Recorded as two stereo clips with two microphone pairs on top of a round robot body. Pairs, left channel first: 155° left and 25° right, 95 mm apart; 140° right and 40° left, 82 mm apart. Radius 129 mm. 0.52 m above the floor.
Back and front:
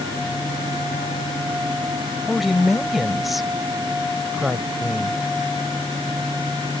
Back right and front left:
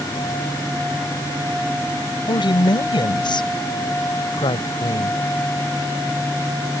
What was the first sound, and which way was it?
A woman speaking, 115° right.